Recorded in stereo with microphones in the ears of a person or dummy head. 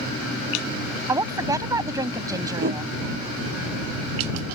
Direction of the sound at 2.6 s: 55° right (ahead or behind).